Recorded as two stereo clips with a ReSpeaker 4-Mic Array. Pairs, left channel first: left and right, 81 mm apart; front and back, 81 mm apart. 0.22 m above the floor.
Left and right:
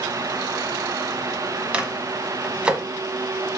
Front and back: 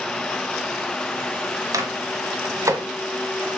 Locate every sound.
1.7 s a microwave: 160° right, 1.1 m